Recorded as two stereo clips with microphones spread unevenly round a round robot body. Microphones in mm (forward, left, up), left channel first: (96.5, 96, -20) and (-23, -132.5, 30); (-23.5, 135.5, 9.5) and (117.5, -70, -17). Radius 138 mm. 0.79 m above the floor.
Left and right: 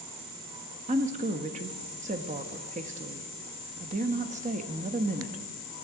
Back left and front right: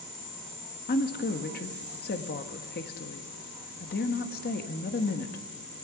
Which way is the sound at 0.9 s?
175° left.